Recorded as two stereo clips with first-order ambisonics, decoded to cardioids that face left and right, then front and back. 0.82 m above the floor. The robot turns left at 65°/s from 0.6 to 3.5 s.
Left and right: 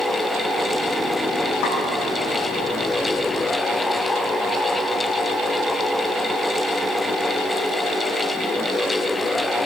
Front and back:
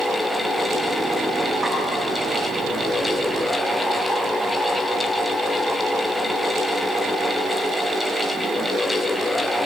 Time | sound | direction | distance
1.6 | a snare drum | 90° left | 9 m